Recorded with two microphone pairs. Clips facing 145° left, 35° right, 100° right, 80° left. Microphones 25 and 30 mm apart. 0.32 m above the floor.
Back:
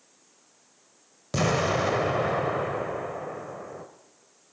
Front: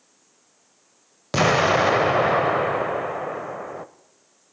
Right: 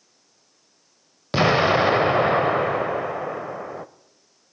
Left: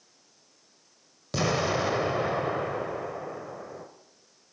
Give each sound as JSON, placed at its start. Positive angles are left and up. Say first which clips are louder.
{"t": 1.3, "sound": "an explosion", "louder": "front 7 dB, right 9 dB", "azimuth_deg": -75, "distance_m": 0.5}